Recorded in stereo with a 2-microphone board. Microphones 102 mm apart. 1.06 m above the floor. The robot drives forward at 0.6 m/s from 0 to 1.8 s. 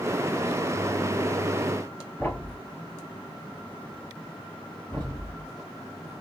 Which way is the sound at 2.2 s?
10° left (ahead or behind).